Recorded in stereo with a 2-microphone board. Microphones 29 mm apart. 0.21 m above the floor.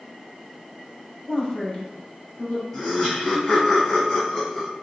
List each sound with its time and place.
1.3 s a woman speaking: 25° left (ahead or behind), 1.0 m; by 2.6 s 35° left (ahead or behind), 1.6 m
2.7 s laughter: 10° left (ahead or behind), 1.7 m